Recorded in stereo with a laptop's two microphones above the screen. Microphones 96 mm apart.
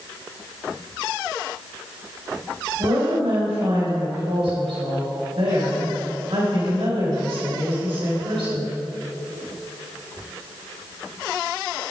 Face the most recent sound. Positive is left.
turn(degrees=-80)